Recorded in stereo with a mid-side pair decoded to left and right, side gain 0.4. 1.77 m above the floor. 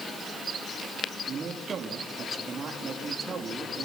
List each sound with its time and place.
1.3 s a man speaking: 50° right, 4 m